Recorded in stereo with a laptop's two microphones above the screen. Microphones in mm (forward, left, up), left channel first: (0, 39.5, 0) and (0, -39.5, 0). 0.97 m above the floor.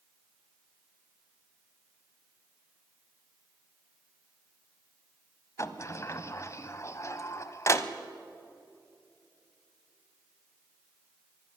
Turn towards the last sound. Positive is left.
turn(degrees=40)  # may be behind; listen again after turning